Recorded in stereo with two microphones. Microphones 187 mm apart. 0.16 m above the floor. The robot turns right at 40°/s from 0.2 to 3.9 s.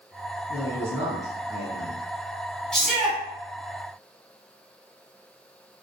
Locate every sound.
0.5 s a man speaking: 10° right (ahead or behind), 1.5 m; by 2.0 s 25° right (ahead or behind), 1.5 m
2.7 s a shout: 5° left (ahead or behind), 1.2 m; by 3.2 s 5° right (ahead or behind), 1.2 m